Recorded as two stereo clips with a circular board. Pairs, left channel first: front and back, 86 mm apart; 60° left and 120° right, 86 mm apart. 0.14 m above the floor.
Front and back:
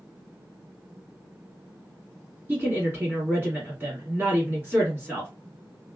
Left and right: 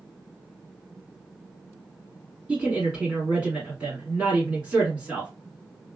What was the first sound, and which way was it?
A woman speaking, 170° right.